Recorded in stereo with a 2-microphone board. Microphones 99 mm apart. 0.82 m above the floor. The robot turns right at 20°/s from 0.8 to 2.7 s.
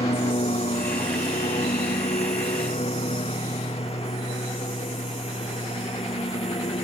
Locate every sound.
0.0 s a lawn mower: 70° left (ahead or behind)